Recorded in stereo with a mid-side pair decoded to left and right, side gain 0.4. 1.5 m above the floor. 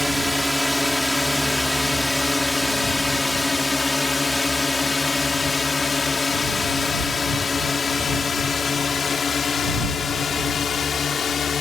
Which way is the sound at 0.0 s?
5° left.